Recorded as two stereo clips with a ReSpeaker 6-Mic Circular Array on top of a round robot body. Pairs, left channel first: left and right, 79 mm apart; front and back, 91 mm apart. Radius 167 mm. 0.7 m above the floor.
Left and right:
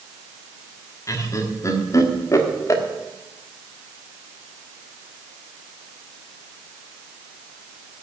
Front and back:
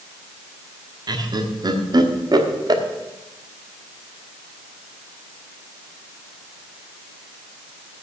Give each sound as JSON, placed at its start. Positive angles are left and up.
{"t": 1.1, "sound": "laughter", "azimuth_deg": 140, "distance_m": 1.6}